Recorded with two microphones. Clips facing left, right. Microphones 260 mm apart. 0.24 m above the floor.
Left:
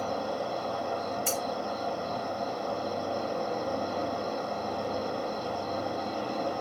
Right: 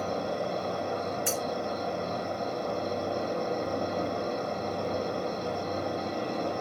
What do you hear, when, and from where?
0.0 s an insect: 20° right (ahead or behind), 0.8 m
1.3 s cutlery clinking: 10° right (ahead or behind), 2 m